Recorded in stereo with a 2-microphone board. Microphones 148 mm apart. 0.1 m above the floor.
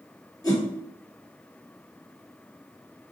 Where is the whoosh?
25° left (ahead or behind), 1.3 m.